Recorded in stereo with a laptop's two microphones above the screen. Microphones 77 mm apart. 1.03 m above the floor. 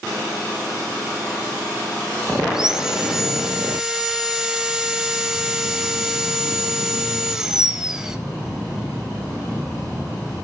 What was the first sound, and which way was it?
Sawing, 10° right (ahead or behind).